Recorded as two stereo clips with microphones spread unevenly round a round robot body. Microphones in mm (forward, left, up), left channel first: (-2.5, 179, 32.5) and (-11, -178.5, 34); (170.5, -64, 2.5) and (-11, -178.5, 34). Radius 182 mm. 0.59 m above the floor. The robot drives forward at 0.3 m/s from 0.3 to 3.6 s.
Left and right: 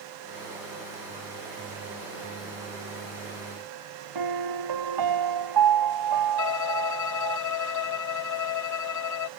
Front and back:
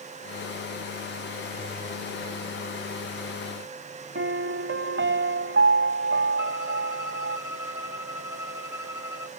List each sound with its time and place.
4.2 s a piano: 125° right
6.4 s a violin: 135° left